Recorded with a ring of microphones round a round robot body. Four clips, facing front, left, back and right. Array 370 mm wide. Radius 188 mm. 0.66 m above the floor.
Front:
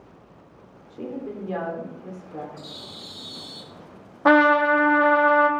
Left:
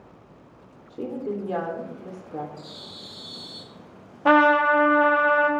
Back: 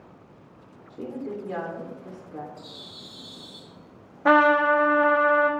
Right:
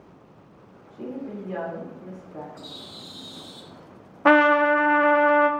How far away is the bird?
About 1.7 m.